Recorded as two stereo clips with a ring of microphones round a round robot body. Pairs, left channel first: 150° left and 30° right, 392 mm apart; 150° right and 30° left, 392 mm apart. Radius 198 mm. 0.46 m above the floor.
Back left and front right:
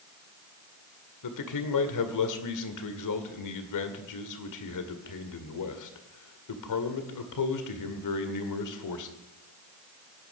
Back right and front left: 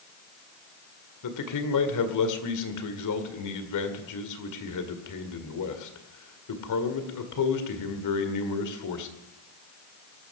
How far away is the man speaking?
About 2 m.